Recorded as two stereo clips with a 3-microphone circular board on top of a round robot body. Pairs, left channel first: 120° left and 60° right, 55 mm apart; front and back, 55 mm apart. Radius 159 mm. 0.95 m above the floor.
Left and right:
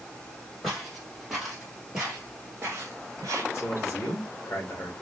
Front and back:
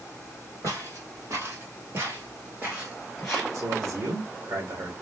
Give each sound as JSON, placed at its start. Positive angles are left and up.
{"t": 0.6, "sound": "footsteps", "azimuth_deg": -155, "distance_m": 2.0}
{"t": 3.5, "sound": "a man speaking", "azimuth_deg": 165, "distance_m": 2.0}